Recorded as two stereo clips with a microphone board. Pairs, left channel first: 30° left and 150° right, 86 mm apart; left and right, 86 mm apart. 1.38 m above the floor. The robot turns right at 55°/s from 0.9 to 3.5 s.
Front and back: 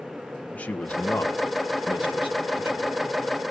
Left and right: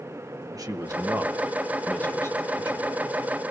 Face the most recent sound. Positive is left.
turn(degrees=100)